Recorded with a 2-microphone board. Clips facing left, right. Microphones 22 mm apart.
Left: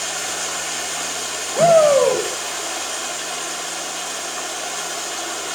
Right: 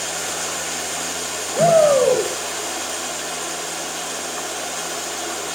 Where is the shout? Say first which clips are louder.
Left 1 dB; 10° left (ahead or behind), 6 m.